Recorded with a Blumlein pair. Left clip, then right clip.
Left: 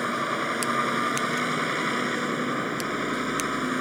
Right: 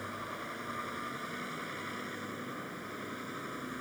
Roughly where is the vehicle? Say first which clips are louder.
Left 14 dB; ahead left.